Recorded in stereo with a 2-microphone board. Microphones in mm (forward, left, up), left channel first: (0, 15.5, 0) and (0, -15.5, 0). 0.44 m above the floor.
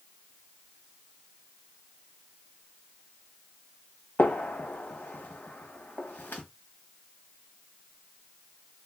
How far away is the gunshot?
About 1.2 m.